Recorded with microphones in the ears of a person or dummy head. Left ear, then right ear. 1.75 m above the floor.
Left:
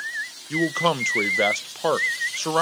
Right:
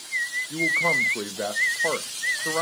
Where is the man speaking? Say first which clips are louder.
Left 1 dB; 75° left (ahead or behind), 0.5 m.